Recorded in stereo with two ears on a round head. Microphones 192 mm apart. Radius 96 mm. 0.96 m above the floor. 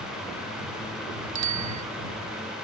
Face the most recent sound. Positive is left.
turn(degrees=-85)